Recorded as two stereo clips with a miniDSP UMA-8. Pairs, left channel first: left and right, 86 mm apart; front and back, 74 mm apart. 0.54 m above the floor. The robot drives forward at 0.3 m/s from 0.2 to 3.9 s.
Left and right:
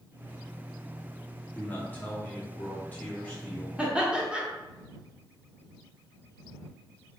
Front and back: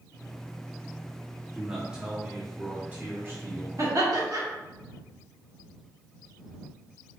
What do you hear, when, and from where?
1.6 s a man speaking: 105° left, 1.1 m; by 3.7 s 150° left, 1.3 m
3.8 s laughter: 160° right, 1.1 m